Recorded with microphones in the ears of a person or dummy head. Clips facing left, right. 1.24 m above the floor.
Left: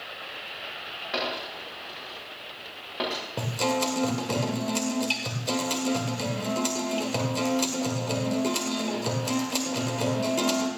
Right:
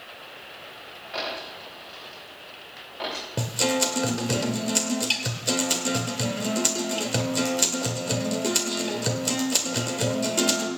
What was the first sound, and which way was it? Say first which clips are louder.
A dropped coin: left 2 dB; 65° left (ahead or behind).